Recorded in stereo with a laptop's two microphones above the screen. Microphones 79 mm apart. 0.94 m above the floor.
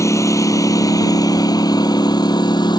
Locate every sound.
0.0 s a lawn mower: 40° left (ahead or behind); by 2.8 s 65° left (ahead or behind)